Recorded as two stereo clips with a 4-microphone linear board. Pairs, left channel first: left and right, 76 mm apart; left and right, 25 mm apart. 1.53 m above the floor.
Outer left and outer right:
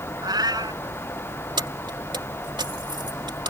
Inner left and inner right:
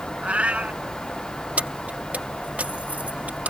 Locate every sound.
0.2 s a cat meowing: 65° right (ahead or behind)
1.6 s keys jangling: 80° right